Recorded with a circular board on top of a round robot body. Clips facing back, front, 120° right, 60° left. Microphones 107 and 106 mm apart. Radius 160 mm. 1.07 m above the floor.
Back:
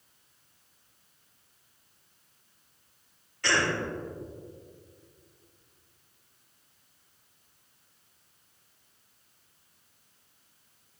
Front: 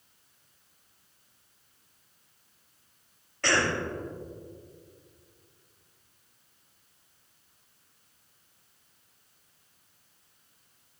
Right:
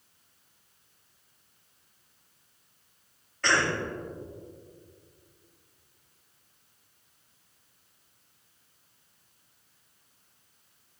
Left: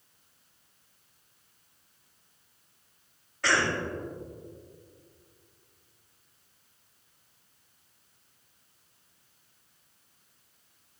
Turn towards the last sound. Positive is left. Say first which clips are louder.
# front 1 dB, even
turn(degrees=-25)